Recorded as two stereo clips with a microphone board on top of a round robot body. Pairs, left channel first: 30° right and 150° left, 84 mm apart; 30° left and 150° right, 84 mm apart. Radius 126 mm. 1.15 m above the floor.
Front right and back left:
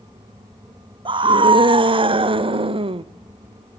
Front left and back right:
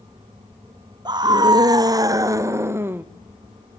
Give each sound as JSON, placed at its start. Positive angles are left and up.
{"t": 1.1, "sound": "a scream", "azimuth_deg": 170, "distance_m": 2.5}